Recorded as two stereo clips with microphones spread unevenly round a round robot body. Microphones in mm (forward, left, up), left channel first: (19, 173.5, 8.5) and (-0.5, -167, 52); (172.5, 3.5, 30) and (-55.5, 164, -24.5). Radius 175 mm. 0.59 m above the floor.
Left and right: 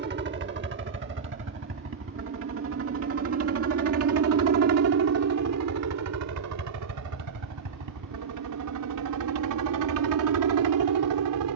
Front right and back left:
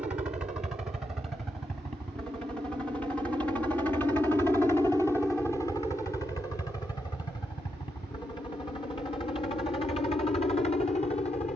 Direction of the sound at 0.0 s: 145° right.